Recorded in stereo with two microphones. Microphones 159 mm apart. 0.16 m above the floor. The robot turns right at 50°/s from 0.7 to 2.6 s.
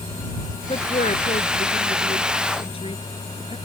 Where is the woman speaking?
35° left (ahead or behind).